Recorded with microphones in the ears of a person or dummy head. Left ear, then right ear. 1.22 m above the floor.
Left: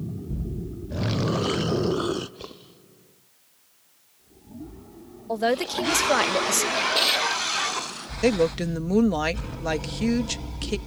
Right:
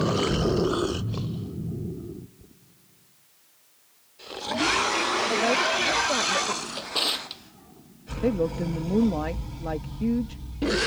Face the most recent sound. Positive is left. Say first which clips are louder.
# left 4 dB
turn(degrees=70)  # may be behind; listen again after turning